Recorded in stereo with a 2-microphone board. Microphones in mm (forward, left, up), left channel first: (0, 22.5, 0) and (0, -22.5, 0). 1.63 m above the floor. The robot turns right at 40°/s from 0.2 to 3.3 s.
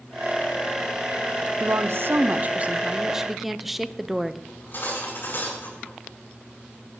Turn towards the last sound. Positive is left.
turn(degrees=55)  # may be behind; listen again after turning